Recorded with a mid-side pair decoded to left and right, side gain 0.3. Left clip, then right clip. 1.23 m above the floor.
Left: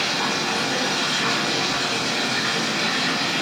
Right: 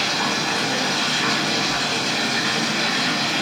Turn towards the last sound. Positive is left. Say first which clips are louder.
# right 1 dB
turn(degrees=-25)